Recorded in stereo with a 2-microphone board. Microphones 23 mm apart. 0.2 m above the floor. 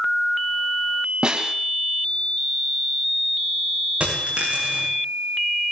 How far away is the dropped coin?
About 8.5 m.